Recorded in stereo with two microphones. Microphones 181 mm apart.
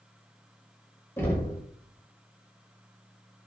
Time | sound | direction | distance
1.2 | knocking | 15° left (ahead or behind) | 1.0 m